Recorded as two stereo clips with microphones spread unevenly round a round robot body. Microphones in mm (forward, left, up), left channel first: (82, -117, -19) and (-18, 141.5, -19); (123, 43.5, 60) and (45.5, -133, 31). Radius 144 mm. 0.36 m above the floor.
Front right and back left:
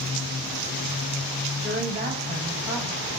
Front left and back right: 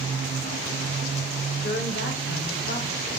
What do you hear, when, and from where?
1.6 s a woman speaking: 65° left, 1.2 m; by 3.1 s 30° left, 1.7 m